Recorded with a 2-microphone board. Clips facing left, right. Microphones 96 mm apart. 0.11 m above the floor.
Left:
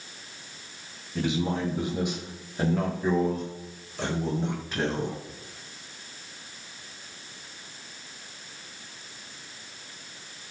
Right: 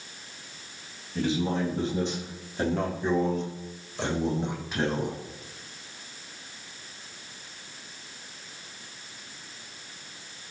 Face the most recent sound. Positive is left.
turn(degrees=-5)  # may be behind; listen again after turning